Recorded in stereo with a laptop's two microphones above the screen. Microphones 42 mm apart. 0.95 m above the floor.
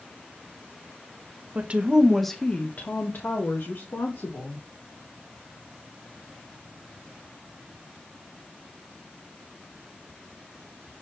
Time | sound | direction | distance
1.6 | a woman speaking | 40° right (ahead or behind) | 1.3 m